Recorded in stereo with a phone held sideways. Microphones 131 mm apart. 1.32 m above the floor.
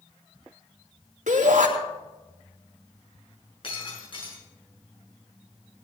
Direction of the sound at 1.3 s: 80° right.